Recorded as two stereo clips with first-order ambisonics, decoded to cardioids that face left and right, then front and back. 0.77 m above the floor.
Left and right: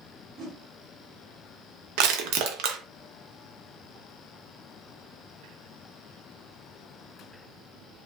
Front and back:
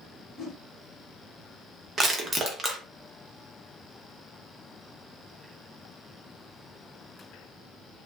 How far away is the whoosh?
About 1.4 m.